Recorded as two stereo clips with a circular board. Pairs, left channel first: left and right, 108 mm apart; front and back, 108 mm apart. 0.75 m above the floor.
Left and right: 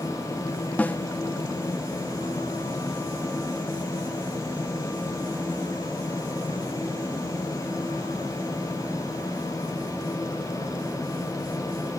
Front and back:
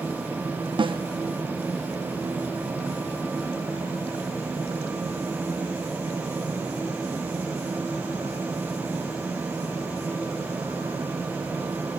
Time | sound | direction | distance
0.8 | a snare drum | 165° left | 0.9 m